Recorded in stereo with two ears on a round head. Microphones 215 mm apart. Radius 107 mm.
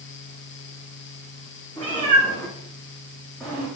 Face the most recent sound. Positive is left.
turn(degrees=0)  # may be behind; listen again after turning